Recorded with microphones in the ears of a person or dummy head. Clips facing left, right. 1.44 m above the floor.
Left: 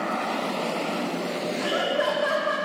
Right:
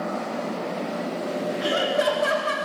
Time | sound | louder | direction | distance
1.6 | laughter | right 2 dB | 35° right (ahead or behind) | 3 m